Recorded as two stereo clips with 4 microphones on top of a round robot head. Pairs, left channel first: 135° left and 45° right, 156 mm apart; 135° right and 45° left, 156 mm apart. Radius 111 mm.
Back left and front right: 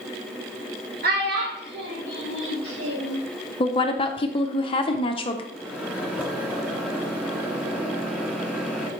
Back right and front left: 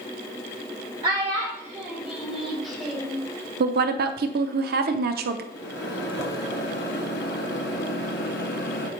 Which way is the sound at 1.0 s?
15° right.